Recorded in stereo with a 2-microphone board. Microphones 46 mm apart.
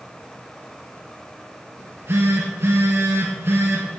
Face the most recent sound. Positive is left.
turn(degrees=-65)  # may be behind; listen again after turning